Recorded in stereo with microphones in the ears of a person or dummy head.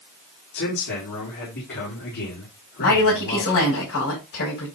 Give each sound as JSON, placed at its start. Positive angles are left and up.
{"t": 0.5, "sound": "a man speaking", "side_deg": 55, "distance_m": 4.5}
{"t": 2.8, "sound": "a woman speaking", "side_deg": 60, "distance_m": 5.5}